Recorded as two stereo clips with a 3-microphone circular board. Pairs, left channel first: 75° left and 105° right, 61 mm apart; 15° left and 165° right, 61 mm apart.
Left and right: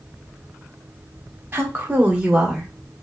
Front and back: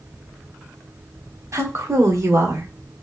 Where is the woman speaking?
150° right, 1.2 m; by 2.7 s 175° left, 1.2 m.